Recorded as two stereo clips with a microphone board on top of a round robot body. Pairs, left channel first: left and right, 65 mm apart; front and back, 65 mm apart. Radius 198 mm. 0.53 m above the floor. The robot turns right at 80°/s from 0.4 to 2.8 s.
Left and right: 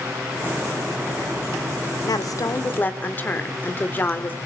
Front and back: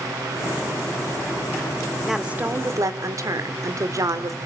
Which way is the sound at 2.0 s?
90° left.